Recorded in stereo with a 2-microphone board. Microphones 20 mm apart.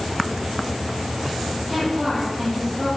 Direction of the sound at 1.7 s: 15° right (ahead or behind).